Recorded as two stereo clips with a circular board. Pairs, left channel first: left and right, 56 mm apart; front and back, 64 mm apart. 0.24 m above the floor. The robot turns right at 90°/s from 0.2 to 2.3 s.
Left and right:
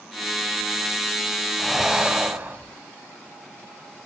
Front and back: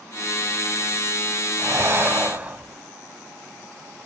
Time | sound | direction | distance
1.6 | breathing | 170° left | 0.9 m